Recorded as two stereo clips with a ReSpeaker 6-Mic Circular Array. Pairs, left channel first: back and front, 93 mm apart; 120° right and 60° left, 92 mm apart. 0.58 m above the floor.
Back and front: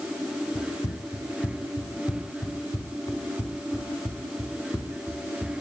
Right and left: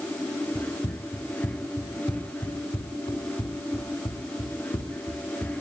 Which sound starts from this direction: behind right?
Running footsteps, at 0.6 s.